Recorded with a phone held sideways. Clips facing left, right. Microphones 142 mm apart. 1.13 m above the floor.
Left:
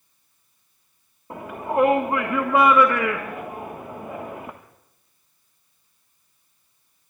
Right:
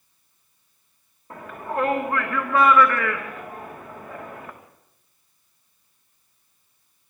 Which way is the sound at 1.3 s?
25° left (ahead or behind).